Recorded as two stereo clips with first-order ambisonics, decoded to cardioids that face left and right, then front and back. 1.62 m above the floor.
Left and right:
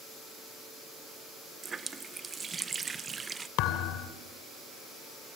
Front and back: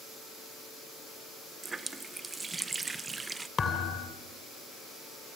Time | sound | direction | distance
1.6 | a running tap | 125° right | 0.6 m
3.6 | a thud | 70° left | 2.5 m